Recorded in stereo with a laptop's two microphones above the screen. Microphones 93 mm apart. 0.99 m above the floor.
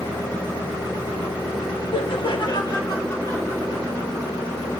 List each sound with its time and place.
1.9 s laughter: 65° left (ahead or behind), 1.2 m; by 4.7 s 15° left (ahead or behind), 4.5 m